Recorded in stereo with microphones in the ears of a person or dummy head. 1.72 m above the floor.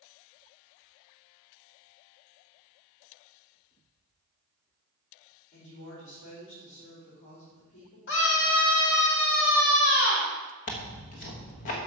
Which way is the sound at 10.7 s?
35° left (ahead or behind).